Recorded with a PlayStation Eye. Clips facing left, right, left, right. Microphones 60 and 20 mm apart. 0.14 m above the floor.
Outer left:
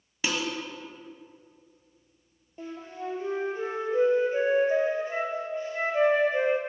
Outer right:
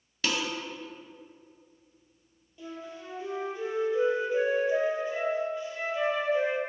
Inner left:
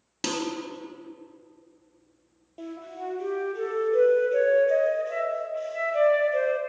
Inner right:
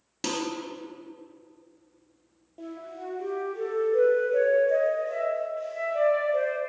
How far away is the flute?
About 1.1 m.